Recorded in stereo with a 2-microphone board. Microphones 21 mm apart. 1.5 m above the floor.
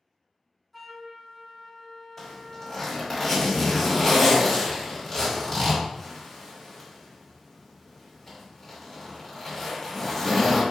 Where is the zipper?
10° left (ahead or behind), 1.4 m.